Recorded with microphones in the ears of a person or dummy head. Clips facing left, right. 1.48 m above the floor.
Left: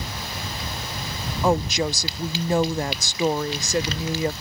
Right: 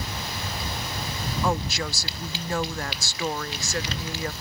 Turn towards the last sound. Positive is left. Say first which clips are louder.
# left 7 dB
turn(degrees=20)  # may be behind; listen again after turning